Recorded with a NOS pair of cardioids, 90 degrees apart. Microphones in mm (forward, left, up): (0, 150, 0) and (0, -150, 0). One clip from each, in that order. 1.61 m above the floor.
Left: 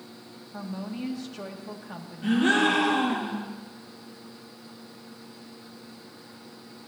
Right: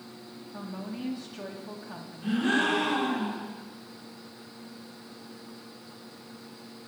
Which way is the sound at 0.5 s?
15° left.